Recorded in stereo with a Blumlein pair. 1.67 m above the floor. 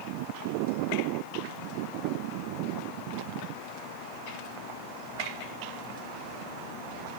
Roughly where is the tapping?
I don't hear tapping.